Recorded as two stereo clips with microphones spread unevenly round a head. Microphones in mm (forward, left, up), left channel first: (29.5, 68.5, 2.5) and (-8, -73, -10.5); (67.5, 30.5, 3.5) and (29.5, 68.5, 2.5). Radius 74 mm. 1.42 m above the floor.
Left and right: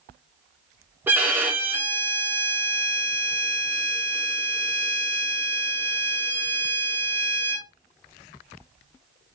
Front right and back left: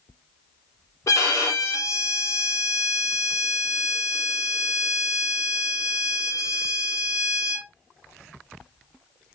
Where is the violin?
25° right, 1.6 m.